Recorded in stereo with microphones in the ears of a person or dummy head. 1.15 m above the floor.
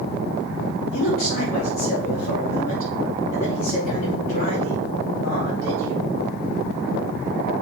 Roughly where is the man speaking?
Left.